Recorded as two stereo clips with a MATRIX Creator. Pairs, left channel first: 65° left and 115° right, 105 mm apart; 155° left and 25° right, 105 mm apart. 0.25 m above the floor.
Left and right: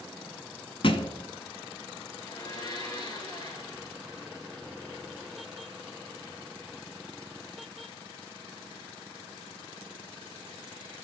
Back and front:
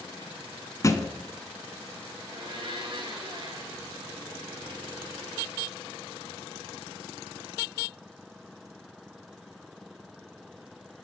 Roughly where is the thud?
Left.